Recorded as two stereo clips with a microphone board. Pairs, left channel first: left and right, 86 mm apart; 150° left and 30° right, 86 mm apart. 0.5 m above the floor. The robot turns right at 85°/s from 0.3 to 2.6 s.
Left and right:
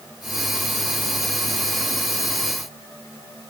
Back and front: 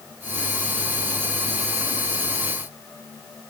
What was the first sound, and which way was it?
Only background noise.